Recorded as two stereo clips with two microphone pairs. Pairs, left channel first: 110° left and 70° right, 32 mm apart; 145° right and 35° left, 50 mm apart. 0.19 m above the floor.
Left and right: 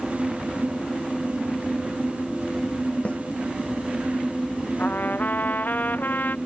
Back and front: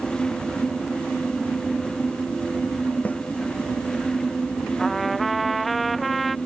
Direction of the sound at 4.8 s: 125° left.